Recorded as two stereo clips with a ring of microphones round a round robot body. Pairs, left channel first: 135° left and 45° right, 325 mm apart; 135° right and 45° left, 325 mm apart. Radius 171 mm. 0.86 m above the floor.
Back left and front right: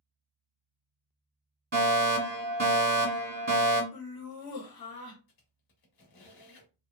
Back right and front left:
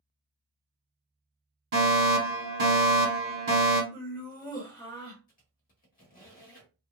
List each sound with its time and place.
1.7 s a fire alarm: 5° left, 1.8 m
3.9 s laughter: 145° left, 1.3 m
5.3 s a squeak: 160° left, 1.1 m